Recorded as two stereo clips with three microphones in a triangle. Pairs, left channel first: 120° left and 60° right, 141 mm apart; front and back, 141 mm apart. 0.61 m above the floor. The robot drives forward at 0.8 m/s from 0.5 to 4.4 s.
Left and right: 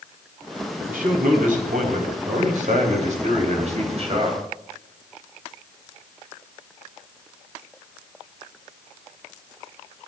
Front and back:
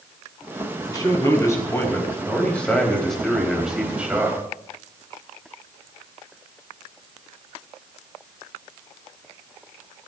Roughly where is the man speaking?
Ahead right.